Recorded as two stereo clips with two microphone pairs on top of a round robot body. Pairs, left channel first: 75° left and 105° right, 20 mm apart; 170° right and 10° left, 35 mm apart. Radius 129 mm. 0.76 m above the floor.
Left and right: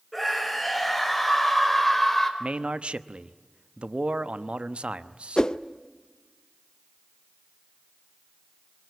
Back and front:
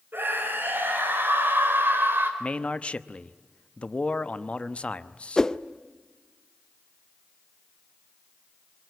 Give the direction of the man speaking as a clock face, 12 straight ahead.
4 o'clock.